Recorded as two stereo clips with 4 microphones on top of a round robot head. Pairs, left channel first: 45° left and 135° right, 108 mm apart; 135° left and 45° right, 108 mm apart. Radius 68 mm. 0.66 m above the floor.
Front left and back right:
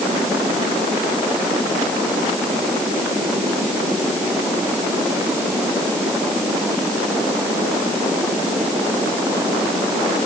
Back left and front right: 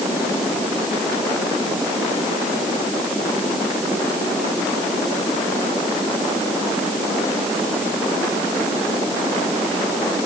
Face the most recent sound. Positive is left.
No sound to turn to.